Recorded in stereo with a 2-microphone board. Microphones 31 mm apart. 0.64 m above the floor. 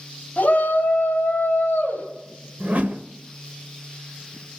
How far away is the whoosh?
About 1.0 m.